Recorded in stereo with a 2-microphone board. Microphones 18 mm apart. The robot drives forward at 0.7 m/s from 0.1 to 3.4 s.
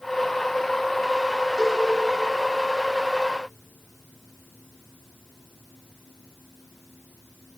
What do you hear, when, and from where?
1.6 s a cowbell: 50° right (ahead or behind), 9.5 m; by 1.9 s 55° right (ahead or behind), 9.5 m